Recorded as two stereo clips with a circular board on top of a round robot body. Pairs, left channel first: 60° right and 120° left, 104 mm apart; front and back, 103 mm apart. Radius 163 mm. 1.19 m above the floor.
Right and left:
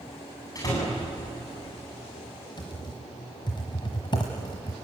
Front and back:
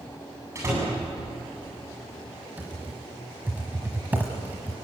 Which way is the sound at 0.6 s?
115° right.